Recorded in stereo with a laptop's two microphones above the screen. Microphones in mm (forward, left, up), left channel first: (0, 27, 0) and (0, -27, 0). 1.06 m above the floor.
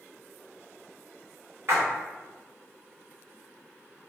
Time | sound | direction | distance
1.7 | a splash | 60° right (ahead or behind) | 0.9 m